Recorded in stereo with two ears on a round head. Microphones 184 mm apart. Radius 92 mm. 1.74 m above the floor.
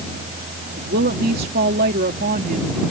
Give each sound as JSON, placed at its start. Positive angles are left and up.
{"t": 0.8, "sound": "a woman speaking", "side_deg": -45}